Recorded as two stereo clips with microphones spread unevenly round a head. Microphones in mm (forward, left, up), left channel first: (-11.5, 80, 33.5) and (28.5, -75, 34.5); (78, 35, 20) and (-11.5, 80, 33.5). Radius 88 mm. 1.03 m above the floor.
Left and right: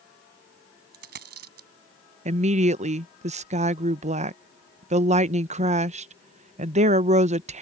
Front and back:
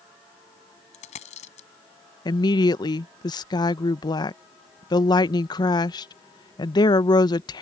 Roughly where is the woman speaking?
Ahead right.